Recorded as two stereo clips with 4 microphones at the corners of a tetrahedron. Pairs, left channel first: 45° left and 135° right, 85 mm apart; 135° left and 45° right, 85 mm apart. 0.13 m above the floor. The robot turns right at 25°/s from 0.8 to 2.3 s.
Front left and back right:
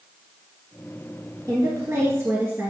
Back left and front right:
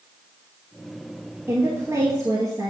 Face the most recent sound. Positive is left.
turn(degrees=-80)